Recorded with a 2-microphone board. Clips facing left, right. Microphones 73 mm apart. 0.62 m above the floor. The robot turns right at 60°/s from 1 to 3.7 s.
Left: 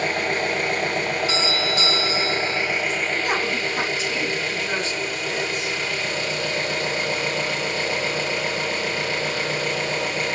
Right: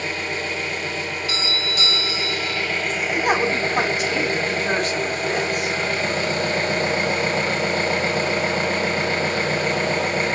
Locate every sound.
0.0 s an engine running: 65° left, 0.8 m; by 10.3 s 135° right, 0.8 m
1.3 s a doorbell: 20° left (ahead or behind), 1.1 m
3.1 s a woman speaking: 130° right, 2 m; by 5.8 s 100° right, 2 m